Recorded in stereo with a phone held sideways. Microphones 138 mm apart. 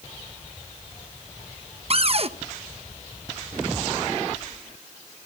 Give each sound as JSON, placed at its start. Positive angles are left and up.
{"t": 1.9, "sound": "a cupboard door", "side_deg": -45, "distance_m": 0.8}